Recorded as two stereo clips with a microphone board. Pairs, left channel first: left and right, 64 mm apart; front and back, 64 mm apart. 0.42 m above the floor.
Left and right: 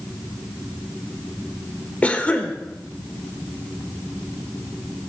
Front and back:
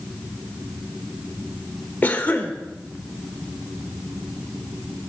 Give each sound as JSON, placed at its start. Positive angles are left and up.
{"t": 2.0, "sound": "a cough", "azimuth_deg": 40, "distance_m": 1.1}